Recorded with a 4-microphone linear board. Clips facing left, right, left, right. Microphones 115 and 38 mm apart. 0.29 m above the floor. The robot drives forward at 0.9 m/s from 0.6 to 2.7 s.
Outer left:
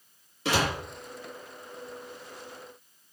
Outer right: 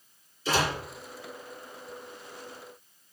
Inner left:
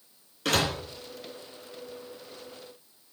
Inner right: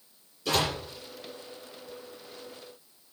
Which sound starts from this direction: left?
A door slam, at 0.5 s.